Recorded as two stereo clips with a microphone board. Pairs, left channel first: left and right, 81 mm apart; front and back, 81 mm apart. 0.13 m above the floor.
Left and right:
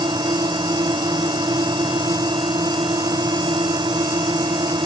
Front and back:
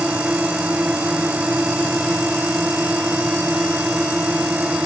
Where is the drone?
105° right.